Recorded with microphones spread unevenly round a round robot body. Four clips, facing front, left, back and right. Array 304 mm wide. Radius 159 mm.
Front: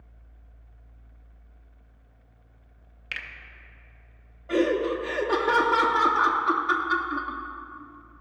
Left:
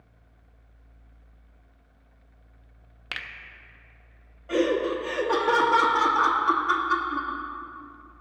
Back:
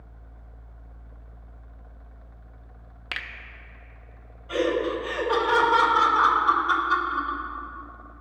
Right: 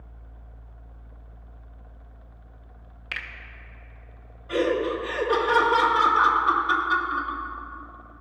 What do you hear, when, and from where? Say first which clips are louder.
3.1 s a finger snap: right 2 dB, back 3 dB; 165° left, 0.7 m
4.5 s laughter: even, front 1 dB; 40° left, 1.0 m